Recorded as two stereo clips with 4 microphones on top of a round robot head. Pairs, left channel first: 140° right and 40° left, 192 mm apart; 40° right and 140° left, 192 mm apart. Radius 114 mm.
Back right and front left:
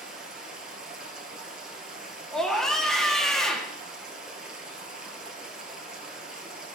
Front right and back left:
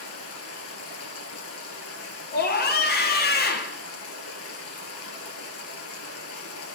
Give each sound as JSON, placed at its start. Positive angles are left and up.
{"t": 0.0, "sound": "running water", "azimuth_deg": -45, "distance_m": 1.4}
{"t": 2.3, "sound": "a scream", "azimuth_deg": -55, "distance_m": 1.3}